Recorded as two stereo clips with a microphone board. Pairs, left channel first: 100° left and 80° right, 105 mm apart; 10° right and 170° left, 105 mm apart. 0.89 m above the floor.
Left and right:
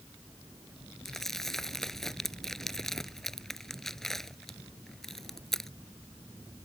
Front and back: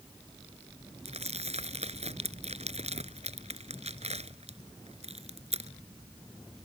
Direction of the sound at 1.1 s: 175° right.